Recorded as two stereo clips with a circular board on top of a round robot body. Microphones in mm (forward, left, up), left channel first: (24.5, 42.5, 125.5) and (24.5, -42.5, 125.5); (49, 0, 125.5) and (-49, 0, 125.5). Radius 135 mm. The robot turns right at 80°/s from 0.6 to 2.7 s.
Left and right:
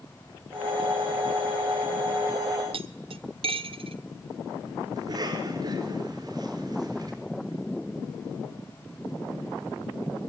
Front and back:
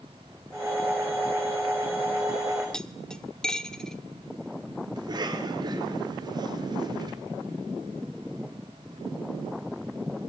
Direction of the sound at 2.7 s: 85° right.